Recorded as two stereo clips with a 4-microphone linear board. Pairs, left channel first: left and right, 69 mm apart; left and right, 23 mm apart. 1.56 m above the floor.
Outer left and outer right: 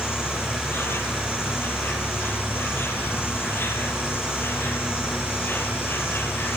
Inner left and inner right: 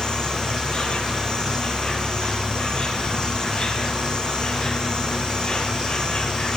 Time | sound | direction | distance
0.0 | an insect | 35° left (ahead or behind) | 8 m